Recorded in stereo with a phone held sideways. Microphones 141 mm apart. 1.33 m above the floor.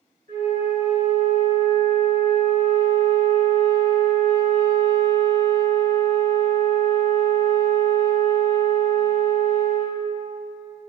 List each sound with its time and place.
0.3 s a flute: 65° right (ahead or behind), 1.7 m